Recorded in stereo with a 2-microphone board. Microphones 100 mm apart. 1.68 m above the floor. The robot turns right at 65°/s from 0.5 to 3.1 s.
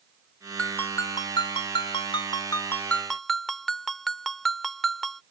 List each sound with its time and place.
0.6 s a ringtone: 15° left; by 5.2 s 175° left